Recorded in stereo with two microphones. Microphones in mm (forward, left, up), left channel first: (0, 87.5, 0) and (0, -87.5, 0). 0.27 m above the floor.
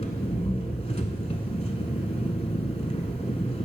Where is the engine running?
35° left (ahead or behind), 0.8 m.